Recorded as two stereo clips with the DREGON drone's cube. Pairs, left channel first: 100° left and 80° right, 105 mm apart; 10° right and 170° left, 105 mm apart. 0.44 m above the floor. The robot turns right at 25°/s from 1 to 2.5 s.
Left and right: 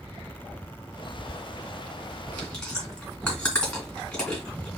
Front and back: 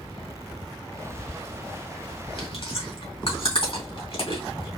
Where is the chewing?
15° left, 3 m; by 4.7 s 20° left, 3 m.